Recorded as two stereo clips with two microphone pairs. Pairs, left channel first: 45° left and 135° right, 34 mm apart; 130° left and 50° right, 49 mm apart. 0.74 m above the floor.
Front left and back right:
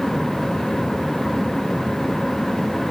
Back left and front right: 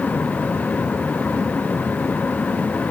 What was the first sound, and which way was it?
Only background noise.